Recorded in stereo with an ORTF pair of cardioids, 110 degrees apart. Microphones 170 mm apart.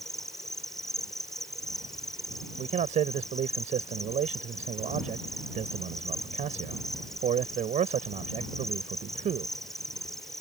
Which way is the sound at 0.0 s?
Straight ahead.